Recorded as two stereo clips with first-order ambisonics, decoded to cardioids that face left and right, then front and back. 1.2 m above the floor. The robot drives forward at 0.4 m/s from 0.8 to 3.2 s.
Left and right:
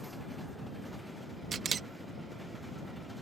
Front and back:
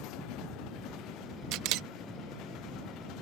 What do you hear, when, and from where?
1.5 s a camera shutter: 155° right; by 1.9 s 160° right